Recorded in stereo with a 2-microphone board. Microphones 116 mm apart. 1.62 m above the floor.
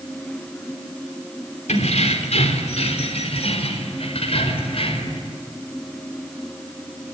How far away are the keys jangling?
About 3.5 m.